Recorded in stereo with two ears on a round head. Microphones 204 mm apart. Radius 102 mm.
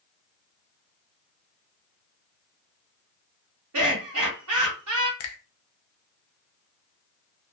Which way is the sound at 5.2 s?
70° left (ahead or behind).